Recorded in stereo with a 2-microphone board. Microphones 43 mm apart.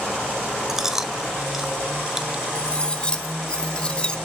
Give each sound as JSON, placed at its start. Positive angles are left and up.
{"t": 0.7, "sound": "chewing", "side_deg": -10, "distance_m": 1.2}
{"t": 2.5, "sound": "cutlery clinking", "side_deg": 25, "distance_m": 1.2}